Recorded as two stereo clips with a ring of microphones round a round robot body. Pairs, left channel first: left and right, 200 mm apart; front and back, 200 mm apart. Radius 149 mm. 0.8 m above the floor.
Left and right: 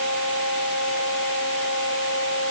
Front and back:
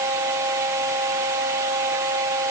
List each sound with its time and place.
Only background noise.